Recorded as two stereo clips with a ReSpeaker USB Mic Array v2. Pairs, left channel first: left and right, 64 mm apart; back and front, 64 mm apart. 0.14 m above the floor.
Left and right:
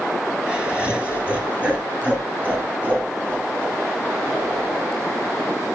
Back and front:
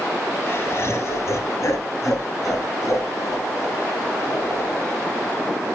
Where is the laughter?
155° right, 1.8 m.